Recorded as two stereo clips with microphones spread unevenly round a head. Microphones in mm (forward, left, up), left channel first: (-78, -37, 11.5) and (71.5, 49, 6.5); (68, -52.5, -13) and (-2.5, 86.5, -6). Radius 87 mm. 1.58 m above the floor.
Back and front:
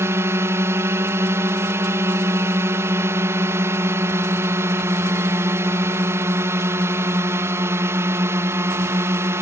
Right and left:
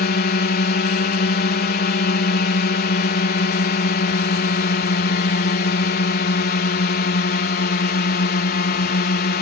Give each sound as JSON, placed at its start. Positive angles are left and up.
{"t": 0.0, "sound": "a drone", "azimuth_deg": -45}